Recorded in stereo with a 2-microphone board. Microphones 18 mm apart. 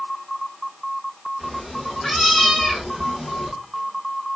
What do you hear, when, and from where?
1.4 s a cat meowing: 20° left (ahead or behind), 3 m; by 3.5 s 40° left (ahead or behind), 2.5 m